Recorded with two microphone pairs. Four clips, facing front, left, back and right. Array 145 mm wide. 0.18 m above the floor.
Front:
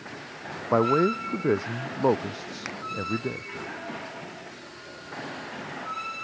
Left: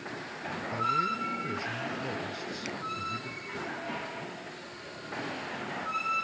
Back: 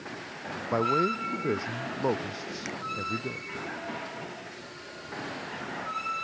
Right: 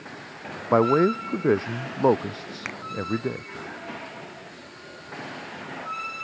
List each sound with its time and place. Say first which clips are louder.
0.7 s a man speaking: right 12 dB, front 5 dB; 70° right
2.6 s a finger snap: right 3 dB, front 1 dB; 55° right